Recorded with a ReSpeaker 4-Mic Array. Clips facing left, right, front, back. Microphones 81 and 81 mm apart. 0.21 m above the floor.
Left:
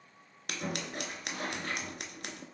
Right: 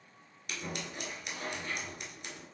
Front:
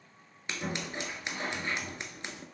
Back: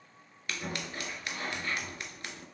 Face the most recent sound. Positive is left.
turn(degrees=65)